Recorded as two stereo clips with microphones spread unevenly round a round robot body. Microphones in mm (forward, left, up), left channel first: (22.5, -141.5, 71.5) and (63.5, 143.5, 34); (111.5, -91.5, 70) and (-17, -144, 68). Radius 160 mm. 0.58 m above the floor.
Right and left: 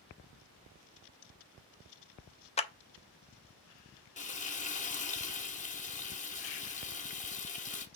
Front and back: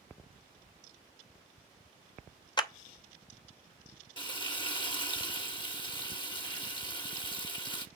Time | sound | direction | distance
2.6 | a clap | 30° right | 1.0 m
4.2 | frying | 30° right | 1.5 m